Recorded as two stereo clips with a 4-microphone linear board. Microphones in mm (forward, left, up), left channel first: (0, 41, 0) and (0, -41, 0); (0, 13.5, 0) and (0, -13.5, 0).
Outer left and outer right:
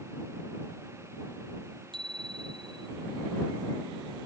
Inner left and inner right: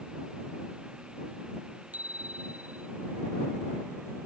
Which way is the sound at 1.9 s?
70° right (ahead or behind).